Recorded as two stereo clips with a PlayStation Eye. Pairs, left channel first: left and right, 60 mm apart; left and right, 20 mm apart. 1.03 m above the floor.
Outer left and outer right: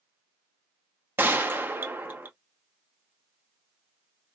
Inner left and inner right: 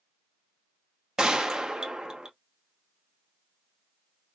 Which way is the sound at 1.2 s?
35° right (ahead or behind).